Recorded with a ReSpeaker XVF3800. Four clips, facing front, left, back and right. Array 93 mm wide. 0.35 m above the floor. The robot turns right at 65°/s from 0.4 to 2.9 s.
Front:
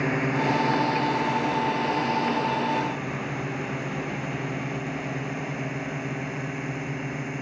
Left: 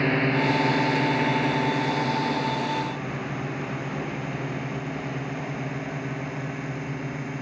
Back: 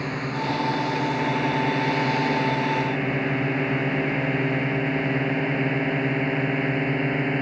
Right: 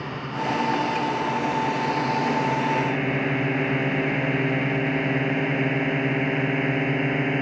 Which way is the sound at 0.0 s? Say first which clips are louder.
Left 6 dB, front 3 dB; 65° left.